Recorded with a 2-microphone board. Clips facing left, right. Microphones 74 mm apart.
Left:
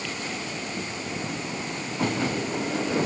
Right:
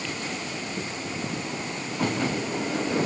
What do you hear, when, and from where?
Only background noise.